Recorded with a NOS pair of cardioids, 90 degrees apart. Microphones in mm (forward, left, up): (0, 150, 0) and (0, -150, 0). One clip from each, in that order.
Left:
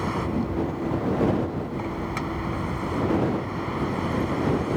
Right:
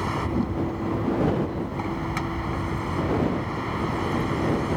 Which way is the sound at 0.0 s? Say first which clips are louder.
Even; 25° right.